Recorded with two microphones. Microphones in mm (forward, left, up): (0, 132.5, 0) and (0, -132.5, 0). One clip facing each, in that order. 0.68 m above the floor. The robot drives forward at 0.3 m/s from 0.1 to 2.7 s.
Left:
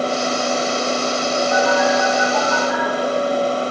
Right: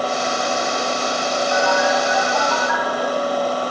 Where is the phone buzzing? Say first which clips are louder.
Left 2 dB; 35° left (ahead or behind), 3 m; by 2.8 s 40° left (ahead or behind), 3 m.